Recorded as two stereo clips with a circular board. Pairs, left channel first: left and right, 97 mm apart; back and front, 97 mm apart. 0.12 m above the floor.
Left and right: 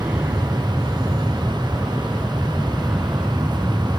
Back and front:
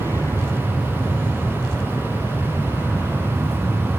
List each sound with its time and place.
0.0 s an aircraft: 155° right; by 4.0 s 165° right